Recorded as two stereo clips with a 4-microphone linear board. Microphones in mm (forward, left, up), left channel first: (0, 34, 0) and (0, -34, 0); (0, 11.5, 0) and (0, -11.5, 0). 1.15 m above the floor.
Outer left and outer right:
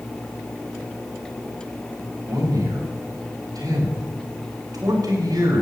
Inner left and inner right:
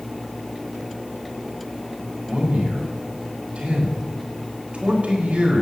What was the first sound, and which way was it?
A man speaking, 85° right.